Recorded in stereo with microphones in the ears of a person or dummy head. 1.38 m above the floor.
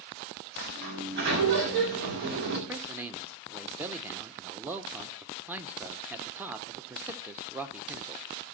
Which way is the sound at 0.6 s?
60° right (ahead or behind).